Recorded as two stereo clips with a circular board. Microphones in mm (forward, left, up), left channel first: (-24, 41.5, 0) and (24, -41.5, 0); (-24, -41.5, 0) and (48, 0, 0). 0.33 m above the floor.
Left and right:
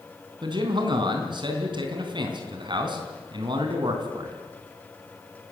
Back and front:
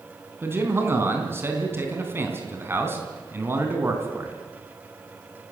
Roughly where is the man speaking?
Ahead right.